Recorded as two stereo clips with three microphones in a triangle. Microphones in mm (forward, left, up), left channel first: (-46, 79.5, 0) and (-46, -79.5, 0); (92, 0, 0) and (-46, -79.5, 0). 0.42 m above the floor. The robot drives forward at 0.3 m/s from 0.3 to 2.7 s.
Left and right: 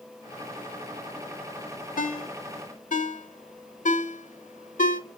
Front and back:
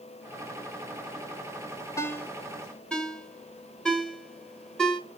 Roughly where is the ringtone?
Left.